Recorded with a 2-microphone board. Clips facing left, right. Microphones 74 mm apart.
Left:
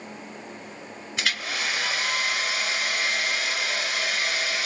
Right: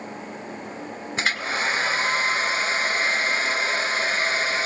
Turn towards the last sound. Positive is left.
turn(degrees=-35)  # may be behind; listen again after turning